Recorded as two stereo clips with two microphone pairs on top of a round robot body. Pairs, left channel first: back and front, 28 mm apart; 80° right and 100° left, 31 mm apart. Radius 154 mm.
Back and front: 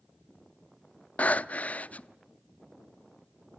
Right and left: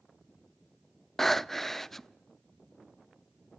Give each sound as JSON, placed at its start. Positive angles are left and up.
{"t": 1.2, "sound": "breathing", "azimuth_deg": -155, "distance_m": 0.7}